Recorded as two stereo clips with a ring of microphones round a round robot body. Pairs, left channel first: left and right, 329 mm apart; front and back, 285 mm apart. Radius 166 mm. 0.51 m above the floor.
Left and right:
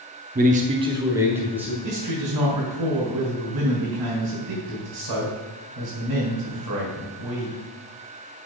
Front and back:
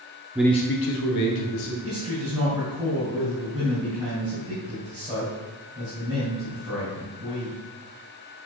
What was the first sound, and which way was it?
A man speaking, 110° right.